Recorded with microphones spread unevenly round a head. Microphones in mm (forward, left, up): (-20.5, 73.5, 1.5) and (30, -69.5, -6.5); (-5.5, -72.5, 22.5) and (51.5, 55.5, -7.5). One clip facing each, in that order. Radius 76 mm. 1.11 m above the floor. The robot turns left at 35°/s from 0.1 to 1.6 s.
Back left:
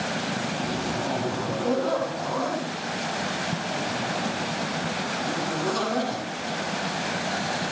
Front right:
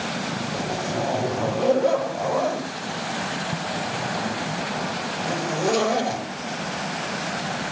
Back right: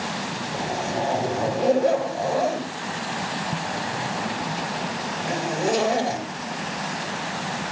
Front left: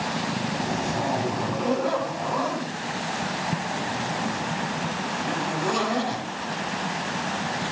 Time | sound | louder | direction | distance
0.5 | a zipper | front right 2 dB, back right 4 dB | 45° right | 7 m